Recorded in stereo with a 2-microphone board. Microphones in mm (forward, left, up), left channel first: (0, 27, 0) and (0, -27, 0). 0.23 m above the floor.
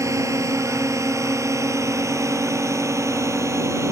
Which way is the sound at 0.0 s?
70° right (ahead or behind).